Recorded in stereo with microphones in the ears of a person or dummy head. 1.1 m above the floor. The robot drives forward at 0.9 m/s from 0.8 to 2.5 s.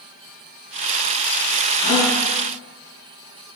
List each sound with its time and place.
1.8 s a gasp: 40° left (ahead or behind), 3 m; by 2.2 s 35° left (ahead or behind), 3.5 m